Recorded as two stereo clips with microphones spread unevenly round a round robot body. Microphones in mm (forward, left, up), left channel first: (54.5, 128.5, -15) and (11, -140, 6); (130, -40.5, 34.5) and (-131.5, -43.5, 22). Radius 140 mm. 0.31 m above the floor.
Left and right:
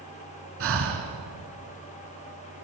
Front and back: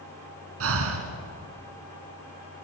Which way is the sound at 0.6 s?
150° right.